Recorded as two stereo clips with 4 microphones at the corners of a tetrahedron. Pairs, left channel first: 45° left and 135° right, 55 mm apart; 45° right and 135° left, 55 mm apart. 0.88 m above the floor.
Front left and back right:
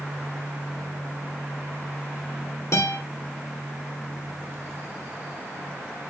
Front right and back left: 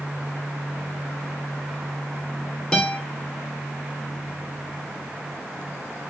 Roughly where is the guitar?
Ahead left.